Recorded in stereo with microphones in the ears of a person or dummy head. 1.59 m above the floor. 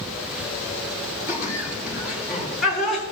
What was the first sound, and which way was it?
Laughter, 15° right (ahead or behind).